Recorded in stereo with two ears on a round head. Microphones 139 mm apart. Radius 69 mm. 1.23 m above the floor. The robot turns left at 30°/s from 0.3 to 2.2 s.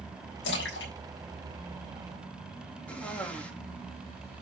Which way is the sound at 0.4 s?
85° left.